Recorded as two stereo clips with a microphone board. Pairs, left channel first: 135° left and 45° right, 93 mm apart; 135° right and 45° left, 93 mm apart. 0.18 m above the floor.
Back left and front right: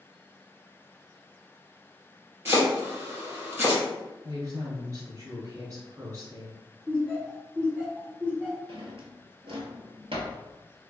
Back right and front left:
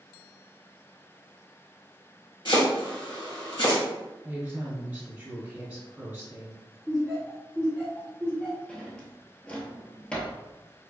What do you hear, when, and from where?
2.5 s chopping: 110° right, 1.9 m
4.2 s a woman speaking: 25° right, 1.5 m
6.9 s laughter: 70° right, 1.4 m
8.7 s a drawer: 55° right, 0.8 m